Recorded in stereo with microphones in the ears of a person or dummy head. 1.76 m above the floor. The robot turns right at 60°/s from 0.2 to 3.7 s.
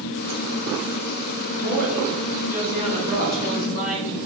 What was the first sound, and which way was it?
A woman speaking, 85° right.